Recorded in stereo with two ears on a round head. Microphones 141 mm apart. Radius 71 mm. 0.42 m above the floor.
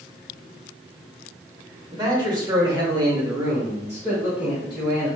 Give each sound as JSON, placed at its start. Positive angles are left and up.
{"t": 1.9, "sound": "a man speaking", "side_deg": -25, "distance_m": 1.4}